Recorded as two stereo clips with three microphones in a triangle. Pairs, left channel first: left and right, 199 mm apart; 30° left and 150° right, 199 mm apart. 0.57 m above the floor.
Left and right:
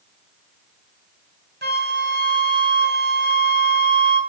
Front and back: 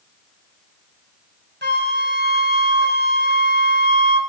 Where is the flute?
125° right, 3 m.